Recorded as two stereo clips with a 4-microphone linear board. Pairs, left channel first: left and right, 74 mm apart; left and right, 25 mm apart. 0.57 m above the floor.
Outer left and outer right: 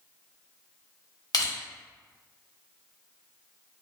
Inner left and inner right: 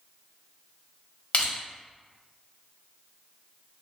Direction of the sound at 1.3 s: 65° left (ahead or behind).